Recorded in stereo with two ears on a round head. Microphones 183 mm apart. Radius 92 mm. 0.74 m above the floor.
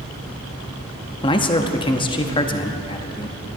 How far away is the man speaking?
About 0.9 m.